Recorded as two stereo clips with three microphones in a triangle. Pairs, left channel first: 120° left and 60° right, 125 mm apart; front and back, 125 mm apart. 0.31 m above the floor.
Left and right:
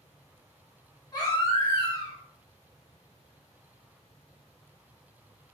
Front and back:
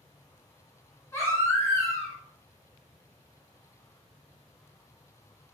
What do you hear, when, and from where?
1.1 s a baby crying: 65° left, 1.4 m